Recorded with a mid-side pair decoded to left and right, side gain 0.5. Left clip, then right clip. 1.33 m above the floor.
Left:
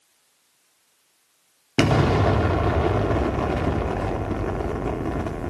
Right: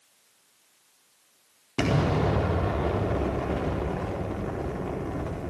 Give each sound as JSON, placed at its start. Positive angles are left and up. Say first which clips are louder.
{"t": 1.8, "sound": "an explosion", "louder": "left 6 dB", "azimuth_deg": 50, "distance_m": 4.0}